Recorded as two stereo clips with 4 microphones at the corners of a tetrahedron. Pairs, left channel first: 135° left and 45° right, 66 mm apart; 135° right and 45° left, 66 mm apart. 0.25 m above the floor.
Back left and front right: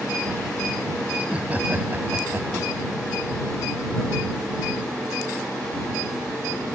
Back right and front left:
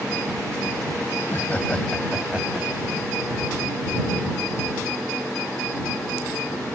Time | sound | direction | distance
1.2 | laughter | 110° right | ?